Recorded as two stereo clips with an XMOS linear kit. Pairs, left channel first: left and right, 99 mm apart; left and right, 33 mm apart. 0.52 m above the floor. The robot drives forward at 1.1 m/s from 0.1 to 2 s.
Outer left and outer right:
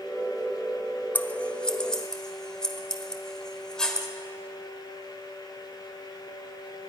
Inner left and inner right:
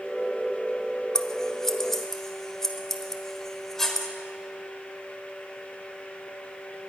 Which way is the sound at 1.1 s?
15° left (ahead or behind).